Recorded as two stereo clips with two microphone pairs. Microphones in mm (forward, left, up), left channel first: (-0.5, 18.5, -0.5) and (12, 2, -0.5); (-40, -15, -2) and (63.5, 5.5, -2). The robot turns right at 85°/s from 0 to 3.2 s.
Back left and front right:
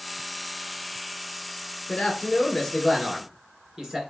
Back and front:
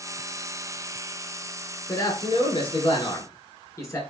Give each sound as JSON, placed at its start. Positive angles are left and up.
{"t": 1.9, "sound": "a man speaking", "azimuth_deg": 135, "distance_m": 2.0}